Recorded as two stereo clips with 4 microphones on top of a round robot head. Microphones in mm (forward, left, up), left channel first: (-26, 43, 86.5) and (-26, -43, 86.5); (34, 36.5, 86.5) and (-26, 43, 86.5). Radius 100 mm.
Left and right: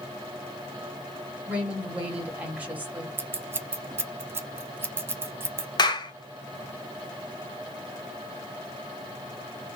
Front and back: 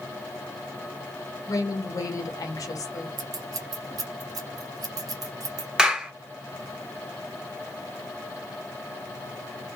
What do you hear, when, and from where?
1.5 s a woman speaking: 15° right, 1.4 m
3.2 s scissors: 155° right, 0.6 m
5.8 s a clap: 100° left, 1.1 m